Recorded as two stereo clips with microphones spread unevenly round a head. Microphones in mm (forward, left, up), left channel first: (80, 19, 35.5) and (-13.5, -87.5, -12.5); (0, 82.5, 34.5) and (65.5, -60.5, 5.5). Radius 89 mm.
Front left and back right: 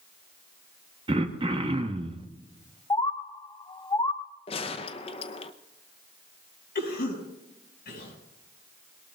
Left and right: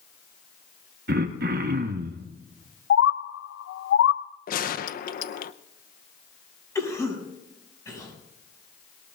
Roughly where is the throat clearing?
Right.